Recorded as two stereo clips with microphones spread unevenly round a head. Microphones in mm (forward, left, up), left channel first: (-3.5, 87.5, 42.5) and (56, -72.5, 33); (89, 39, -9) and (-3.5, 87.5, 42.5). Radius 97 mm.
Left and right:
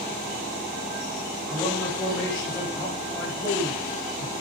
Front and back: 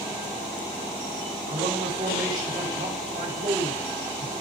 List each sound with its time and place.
1.5 s a man speaking: 175° right, 5 m